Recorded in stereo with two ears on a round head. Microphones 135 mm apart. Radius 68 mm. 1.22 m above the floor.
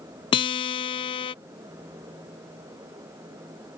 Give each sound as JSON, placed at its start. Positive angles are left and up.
{"t": 0.3, "sound": "a guitar", "side_deg": 35}